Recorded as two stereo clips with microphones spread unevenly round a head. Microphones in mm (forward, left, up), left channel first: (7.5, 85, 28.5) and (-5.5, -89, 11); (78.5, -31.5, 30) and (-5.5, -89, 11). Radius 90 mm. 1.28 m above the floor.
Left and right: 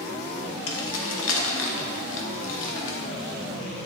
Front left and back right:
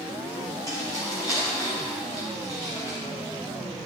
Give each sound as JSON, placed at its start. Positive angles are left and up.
{"t": 0.7, "sound": "keys jangling", "azimuth_deg": 105, "distance_m": 1.1}